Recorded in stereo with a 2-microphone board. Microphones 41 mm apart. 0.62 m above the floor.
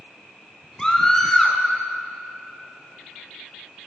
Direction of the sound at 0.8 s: 15° left (ahead or behind).